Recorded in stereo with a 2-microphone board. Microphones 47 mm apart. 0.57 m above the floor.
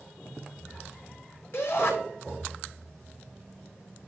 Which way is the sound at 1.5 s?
55° left (ahead or behind).